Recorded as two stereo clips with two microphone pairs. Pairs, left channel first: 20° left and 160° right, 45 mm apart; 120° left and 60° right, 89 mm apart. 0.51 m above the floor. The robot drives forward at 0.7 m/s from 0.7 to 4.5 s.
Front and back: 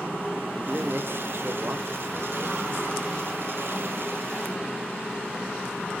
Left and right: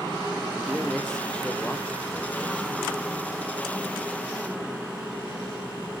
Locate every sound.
0.5 s a man speaking: 140° right, 0.8 m; by 2.8 s 170° right, 2 m